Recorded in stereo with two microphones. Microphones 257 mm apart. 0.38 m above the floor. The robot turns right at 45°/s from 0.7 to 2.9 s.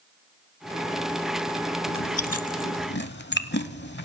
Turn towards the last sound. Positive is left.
turn(degrees=45)  # may be behind; listen again after turning